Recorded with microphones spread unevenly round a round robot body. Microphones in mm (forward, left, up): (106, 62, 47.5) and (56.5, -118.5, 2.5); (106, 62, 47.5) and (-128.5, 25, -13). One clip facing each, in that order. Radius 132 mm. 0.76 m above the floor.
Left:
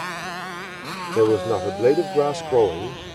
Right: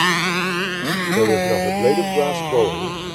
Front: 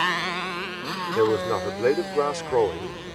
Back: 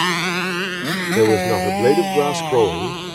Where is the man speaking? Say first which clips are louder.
Right 1 dB, back 6 dB; 165° left.